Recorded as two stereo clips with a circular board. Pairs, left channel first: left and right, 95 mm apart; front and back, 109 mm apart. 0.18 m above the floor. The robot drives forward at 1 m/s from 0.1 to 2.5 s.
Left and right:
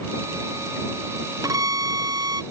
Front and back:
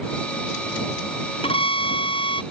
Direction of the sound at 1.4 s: 35° right.